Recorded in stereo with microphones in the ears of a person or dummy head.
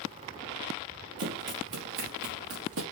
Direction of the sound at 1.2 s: 60° right (ahead or behind).